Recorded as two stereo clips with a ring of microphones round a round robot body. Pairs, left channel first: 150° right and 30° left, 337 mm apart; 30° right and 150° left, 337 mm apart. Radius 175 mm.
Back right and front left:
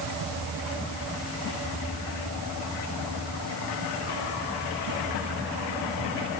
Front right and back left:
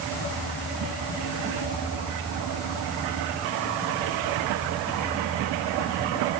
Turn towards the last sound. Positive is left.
No sound to turn to.